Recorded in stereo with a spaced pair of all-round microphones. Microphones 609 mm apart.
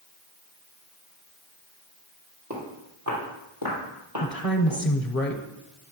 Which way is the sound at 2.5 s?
25° right (ahead or behind).